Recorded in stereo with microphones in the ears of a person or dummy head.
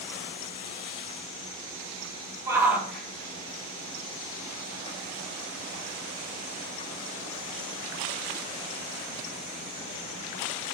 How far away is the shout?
About 1.1 m.